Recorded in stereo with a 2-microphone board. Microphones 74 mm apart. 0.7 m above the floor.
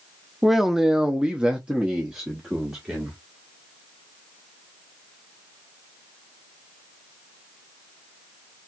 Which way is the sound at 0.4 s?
5° right (ahead or behind).